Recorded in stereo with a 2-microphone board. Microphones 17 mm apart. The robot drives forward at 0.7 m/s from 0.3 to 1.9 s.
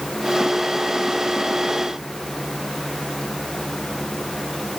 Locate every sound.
Only background noise.